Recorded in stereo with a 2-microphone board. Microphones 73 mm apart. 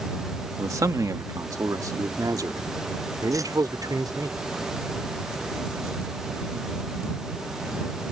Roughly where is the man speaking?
Right.